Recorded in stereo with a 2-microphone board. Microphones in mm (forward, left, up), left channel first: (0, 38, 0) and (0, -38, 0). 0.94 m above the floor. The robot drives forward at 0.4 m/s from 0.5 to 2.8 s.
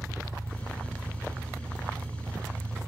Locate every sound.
0.0 s an engine running: 35° left (ahead or behind), 8 m